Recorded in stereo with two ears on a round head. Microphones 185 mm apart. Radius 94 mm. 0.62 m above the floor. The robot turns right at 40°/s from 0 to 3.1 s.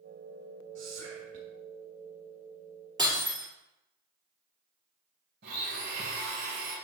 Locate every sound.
0.8 s whispering: 65° right (ahead or behind), 1.6 m
3.0 s breaking glass: 20° right (ahead or behind), 3 m; by 3.5 s 15° right (ahead or behind), 3 m
5.4 s a blender: 50° right (ahead or behind), 2.5 m